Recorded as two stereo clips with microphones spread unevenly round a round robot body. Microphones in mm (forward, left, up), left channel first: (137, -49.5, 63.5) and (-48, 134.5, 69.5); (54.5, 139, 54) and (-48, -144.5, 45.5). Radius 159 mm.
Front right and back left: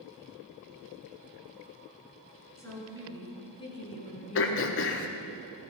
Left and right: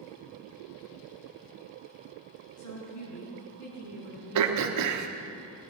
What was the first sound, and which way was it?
A woman speaking, 35° left.